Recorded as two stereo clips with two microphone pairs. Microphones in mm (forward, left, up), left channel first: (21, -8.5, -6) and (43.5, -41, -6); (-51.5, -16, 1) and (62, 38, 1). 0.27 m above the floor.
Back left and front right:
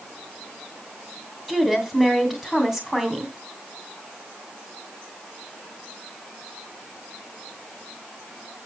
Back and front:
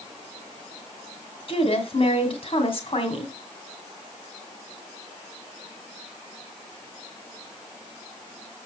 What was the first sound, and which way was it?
A woman speaking, 135° right.